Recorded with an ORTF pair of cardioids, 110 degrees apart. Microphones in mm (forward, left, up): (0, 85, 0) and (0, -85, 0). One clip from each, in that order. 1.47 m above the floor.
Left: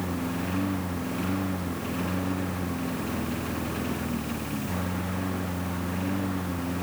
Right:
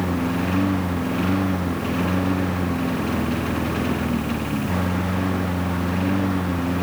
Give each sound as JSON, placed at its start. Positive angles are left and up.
{"t": 0.0, "sound": "a lawn mower", "azimuth_deg": -45}